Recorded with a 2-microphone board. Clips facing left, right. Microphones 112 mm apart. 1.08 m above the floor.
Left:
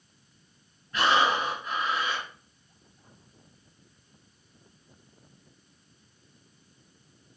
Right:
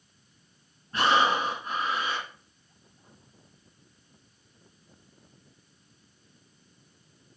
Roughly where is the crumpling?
No crumpling in this recording.